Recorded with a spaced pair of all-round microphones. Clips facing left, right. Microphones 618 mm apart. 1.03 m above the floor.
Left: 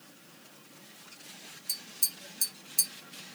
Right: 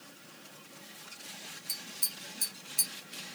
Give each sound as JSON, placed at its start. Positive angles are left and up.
{"t": 1.7, "sound": "tapping", "side_deg": 70, "distance_m": 0.6}